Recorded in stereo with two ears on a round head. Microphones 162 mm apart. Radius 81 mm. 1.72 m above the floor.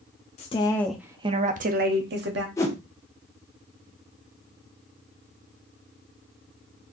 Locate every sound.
0.4 s a woman speaking: 35° left (ahead or behind), 0.7 m; by 2.5 s 65° right (ahead or behind), 1.2 m
2.6 s a whoosh: 15° left (ahead or behind), 1.1 m